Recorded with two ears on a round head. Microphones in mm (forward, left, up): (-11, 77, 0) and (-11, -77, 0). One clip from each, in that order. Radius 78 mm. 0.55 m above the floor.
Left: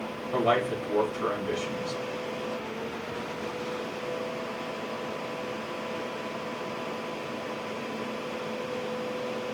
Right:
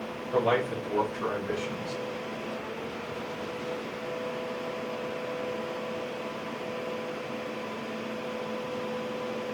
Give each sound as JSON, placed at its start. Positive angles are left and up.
{"t": 0.3, "sound": "a man speaking", "side_deg": 20, "distance_m": 1.9}